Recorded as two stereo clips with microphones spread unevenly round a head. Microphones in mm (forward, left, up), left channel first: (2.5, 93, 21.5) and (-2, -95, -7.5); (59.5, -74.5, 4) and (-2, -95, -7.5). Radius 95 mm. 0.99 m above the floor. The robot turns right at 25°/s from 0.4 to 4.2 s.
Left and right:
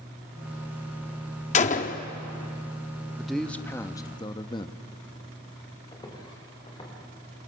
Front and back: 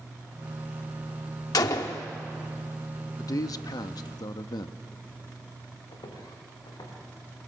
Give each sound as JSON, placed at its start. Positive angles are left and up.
{"t": 1.5, "sound": "a gunshot", "azimuth_deg": 40, "distance_m": 1.0}
{"t": 3.2, "sound": "a man speaking", "azimuth_deg": -5, "distance_m": 1.0}
{"t": 5.9, "sound": "footsteps", "azimuth_deg": 20, "distance_m": 5.5}